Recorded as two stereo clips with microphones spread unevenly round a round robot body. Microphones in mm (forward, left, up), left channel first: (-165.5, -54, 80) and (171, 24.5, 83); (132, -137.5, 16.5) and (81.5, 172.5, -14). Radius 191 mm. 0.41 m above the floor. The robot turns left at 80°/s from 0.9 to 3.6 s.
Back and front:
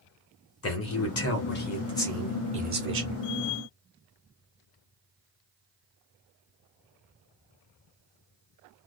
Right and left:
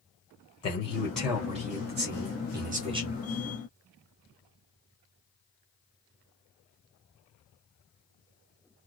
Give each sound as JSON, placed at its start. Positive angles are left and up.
{"t": 0.6, "sound": "a man speaking", "azimuth_deg": -155, "distance_m": 1.2}